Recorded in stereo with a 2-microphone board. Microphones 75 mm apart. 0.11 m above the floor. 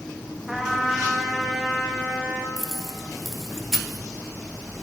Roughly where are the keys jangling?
Centre.